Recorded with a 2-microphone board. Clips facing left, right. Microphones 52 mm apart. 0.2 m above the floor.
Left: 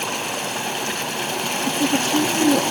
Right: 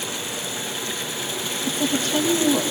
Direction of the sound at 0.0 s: 50° left (ahead or behind).